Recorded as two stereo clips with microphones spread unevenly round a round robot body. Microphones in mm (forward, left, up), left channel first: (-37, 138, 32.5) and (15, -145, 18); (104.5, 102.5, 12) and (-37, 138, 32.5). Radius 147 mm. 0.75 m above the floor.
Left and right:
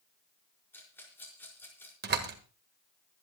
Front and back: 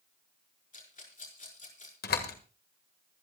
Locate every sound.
0.7 s a rattle: 15° left, 5 m
2.0 s a door slam: 20° right, 1.7 m